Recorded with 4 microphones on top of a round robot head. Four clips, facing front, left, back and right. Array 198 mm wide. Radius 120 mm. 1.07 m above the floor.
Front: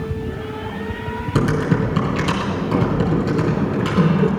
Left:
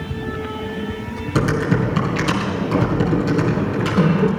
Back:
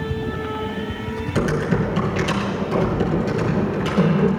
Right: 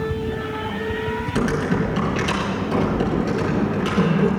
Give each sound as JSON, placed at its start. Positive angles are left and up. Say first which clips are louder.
{"t": 1.4, "sound": "typing on a keyboard", "louder": "left 3 dB, front 2 dB", "azimuth_deg": 35, "distance_m": 4.0}